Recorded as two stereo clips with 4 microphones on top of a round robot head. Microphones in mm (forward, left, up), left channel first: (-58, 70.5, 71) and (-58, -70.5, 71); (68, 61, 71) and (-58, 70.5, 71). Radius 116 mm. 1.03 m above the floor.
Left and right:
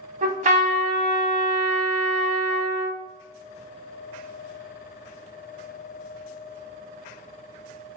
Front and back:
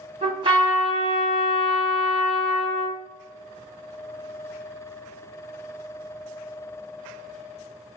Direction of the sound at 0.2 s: 125° right.